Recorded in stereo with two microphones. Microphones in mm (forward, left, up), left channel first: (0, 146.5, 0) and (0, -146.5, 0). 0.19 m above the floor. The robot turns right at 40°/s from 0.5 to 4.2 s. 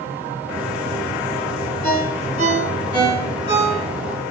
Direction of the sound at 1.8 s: 30° left (ahead or behind).